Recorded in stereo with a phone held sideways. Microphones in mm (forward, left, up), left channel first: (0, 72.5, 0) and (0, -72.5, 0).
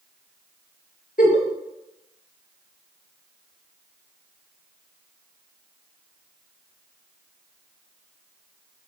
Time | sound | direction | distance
1.2 | a giggle | 75° left (ahead or behind) | 2.0 m